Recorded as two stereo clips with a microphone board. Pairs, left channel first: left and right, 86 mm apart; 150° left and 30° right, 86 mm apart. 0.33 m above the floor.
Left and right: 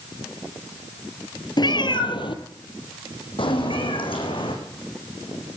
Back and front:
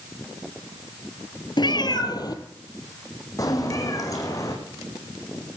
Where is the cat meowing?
125° left, 1.2 m; by 4.5 s 100° left, 4.5 m.